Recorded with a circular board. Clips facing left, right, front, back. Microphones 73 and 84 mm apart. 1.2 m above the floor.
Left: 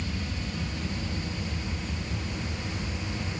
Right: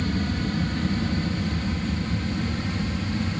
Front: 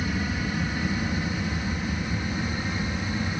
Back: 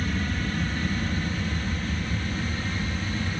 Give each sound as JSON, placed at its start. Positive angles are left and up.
{"t": 0.0, "sound": "an aircraft", "azimuth_deg": -80}